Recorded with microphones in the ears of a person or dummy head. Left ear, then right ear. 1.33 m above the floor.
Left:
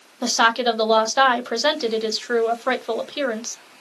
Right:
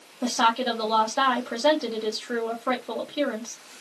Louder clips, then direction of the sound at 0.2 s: Left 5 dB; 80° left.